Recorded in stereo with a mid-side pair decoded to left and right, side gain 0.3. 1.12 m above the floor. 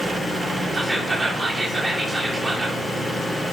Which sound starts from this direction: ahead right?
Whispering, at 0.7 s.